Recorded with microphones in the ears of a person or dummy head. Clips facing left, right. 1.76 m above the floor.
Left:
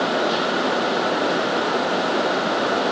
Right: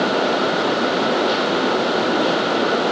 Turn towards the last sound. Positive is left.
No sound to turn to.